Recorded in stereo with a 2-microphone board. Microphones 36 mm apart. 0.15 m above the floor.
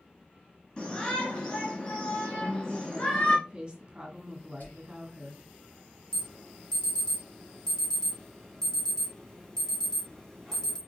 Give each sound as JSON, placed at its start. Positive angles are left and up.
{"t": 0.8, "sound": "a shout", "side_deg": 30, "distance_m": 2.0}
{"t": 2.4, "sound": "a woman speaking", "side_deg": -25, "distance_m": 1.6}
{"t": 4.6, "sound": "whispering", "side_deg": 55, "distance_m": 3.0}
{"t": 6.1, "sound": "an alarm", "side_deg": 15, "distance_m": 1.6}